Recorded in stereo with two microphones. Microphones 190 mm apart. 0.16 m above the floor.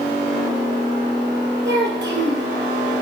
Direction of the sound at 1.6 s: 65° right (ahead or behind).